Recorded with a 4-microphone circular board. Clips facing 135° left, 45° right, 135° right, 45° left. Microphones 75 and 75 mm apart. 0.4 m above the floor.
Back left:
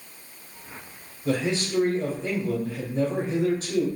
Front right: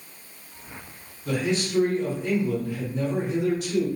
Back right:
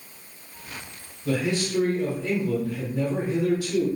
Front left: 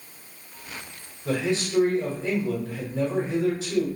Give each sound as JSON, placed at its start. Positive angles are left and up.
{"t": 1.2, "sound": "a man speaking", "azimuth_deg": 105, "distance_m": 1.2}